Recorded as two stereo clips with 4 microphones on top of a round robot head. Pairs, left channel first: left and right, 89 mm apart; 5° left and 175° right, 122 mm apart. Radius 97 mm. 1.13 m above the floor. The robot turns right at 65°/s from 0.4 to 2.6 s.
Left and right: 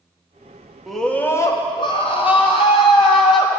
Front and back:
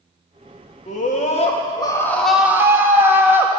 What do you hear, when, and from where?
0.9 s a scream: straight ahead, 2.5 m; by 3.5 s 110° left, 2.5 m